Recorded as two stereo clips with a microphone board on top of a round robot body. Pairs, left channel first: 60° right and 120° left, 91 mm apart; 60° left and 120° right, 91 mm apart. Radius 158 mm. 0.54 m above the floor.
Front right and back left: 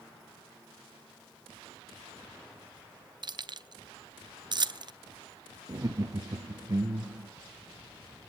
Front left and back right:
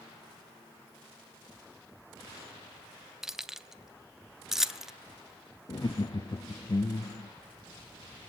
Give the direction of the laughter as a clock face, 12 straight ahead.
9 o'clock.